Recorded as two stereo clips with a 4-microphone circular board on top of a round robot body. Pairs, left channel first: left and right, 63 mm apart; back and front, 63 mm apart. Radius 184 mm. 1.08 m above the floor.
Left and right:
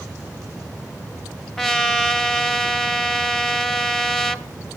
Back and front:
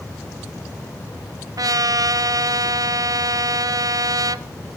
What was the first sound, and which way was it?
A trumpet, 5° left.